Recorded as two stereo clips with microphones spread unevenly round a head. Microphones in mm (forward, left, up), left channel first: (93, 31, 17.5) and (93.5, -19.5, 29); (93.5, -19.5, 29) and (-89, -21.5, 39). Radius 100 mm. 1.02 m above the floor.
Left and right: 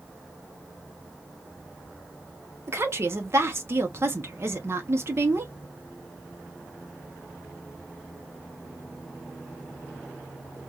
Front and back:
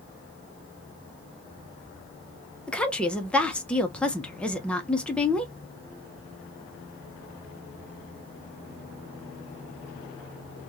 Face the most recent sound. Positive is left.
turn(degrees=-75)